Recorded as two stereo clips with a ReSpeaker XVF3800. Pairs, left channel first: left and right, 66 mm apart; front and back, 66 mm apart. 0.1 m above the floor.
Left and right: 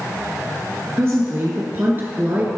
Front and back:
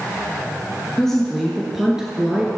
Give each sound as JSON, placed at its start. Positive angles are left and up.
{"t": 1.0, "sound": "a woman speaking", "azimuth_deg": -75, "distance_m": 1.9}